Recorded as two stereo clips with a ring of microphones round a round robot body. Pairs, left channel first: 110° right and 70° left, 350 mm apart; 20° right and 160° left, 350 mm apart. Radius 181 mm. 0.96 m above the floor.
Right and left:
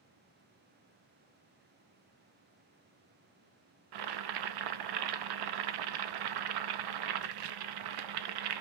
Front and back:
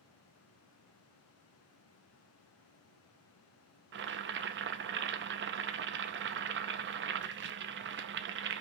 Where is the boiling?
95° left, 0.6 m.